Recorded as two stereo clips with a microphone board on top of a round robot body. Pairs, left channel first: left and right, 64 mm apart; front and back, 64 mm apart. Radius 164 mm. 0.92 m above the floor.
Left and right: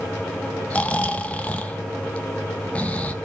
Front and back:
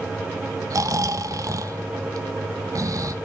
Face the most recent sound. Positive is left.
turn(degrees=160)